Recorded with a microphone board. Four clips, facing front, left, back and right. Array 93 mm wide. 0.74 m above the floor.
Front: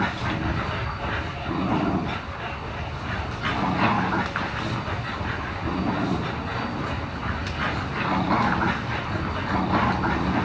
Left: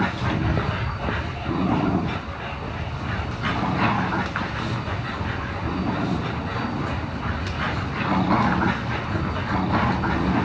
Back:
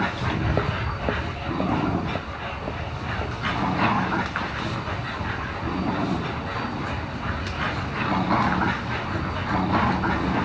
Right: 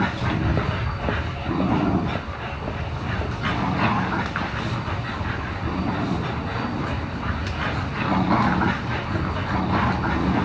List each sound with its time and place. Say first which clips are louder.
0.1 s footsteps: even, back 2 dB; 165° left, 1.2 m; by 4.9 s 135° right, 6 m